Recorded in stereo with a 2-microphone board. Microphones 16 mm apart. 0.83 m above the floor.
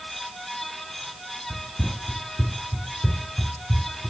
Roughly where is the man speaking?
I don't hear a man speaking.